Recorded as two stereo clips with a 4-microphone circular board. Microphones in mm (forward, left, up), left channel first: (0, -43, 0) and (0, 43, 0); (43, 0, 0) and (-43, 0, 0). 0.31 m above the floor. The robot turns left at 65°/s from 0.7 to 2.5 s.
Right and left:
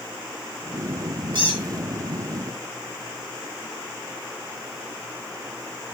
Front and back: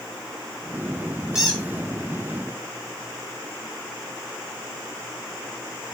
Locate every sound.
1.4 s a squeak: 95° left, 3.5 m; by 1.6 s 75° left, 3.5 m